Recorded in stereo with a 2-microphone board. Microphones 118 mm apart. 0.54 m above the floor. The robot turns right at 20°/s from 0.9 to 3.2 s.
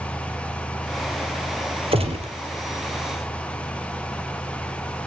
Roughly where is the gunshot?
Right.